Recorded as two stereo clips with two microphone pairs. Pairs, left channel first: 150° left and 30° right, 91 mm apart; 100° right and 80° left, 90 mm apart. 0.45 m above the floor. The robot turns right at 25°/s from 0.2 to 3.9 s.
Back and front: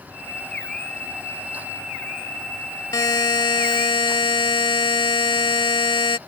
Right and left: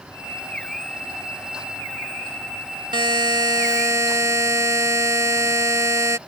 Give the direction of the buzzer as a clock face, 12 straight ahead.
9 o'clock.